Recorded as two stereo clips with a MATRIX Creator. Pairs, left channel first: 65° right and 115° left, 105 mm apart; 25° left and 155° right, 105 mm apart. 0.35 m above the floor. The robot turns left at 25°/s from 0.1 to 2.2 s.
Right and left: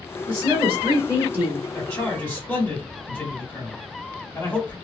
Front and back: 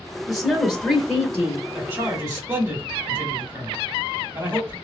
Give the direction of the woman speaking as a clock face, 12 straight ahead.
8 o'clock.